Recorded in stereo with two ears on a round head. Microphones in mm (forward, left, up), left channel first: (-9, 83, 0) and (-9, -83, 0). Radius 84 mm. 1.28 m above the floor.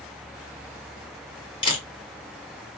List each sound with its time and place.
1.6 s a camera shutter: 25° left (ahead or behind), 2.5 m